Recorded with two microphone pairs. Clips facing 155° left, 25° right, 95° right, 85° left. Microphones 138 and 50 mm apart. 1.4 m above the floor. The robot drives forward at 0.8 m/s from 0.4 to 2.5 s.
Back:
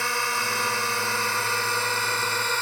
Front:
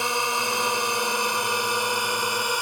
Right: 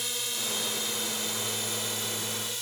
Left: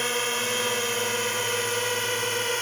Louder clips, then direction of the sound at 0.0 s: Front 3 dB, left 9 dB; 45° left.